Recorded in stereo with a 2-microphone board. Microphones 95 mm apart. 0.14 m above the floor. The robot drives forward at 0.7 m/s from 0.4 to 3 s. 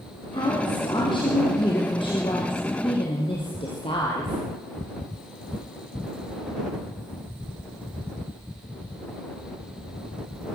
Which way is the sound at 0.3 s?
55° left (ahead or behind).